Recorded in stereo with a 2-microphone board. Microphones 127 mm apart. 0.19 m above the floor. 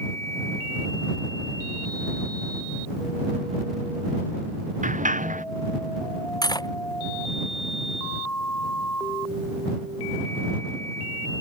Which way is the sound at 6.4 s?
30° left (ahead or behind).